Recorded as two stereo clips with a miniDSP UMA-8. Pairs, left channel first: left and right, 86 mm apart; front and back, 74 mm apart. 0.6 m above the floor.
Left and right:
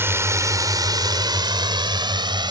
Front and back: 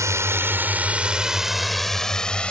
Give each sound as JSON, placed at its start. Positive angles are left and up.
{"t": 0.0, "sound": "a drone", "azimuth_deg": -145}